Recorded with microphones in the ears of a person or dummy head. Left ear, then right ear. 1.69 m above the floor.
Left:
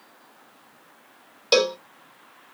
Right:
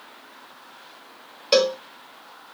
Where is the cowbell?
40° left (ahead or behind), 1.7 m.